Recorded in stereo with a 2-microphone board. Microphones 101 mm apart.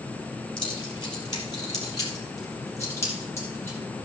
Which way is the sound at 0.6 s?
50° left (ahead or behind).